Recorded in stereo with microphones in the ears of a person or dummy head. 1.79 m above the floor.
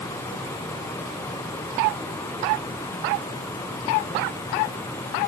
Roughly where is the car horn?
No car horn in this recording.